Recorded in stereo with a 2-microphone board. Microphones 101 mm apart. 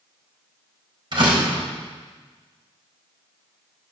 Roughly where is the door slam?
Right.